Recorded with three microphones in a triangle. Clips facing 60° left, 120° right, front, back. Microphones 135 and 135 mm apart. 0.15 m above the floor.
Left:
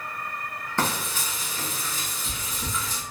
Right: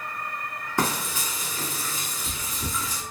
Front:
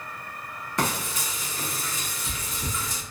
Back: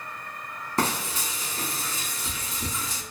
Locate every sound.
0.8 s frying: 175° left, 1.2 m